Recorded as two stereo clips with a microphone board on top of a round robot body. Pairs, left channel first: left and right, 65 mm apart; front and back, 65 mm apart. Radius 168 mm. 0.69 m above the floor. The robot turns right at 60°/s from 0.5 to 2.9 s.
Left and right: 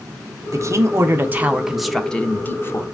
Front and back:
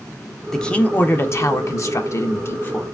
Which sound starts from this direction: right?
A man speaking, at 0.5 s.